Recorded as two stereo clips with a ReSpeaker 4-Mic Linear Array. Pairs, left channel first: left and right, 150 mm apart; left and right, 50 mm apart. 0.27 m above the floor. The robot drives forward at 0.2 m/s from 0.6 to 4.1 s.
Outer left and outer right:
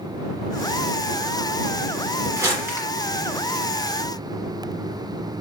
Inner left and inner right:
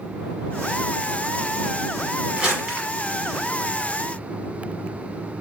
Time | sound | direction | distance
2.4 | crumpling | 15° right (ahead or behind) | 1.2 m